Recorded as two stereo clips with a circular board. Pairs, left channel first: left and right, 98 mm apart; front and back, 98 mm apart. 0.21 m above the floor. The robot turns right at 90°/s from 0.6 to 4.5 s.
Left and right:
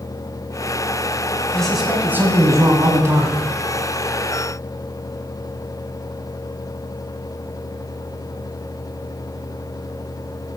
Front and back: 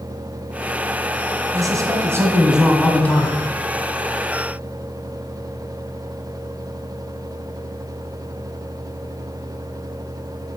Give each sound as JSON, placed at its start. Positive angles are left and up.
{"t": 1.5, "sound": "a man speaking", "azimuth_deg": 165, "distance_m": 1.9}